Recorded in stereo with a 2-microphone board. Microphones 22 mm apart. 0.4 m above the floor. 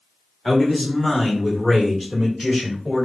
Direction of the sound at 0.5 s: 20° left (ahead or behind).